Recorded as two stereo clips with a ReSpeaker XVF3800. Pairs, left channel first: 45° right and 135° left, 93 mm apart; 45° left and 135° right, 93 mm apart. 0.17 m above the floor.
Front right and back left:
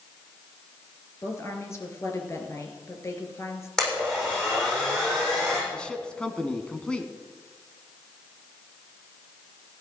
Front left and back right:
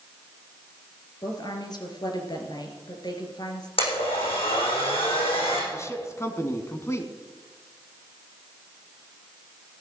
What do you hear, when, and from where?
1.2 s a woman speaking: 10° left, 3 m
3.8 s a blender: 40° left, 7 m
5.7 s a man speaking: 30° left, 1.4 m